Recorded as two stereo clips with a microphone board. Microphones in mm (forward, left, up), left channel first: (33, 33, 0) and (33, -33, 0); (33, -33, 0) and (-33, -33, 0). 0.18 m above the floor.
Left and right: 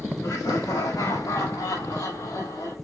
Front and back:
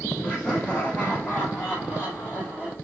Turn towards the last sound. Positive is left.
turn(degrees=60)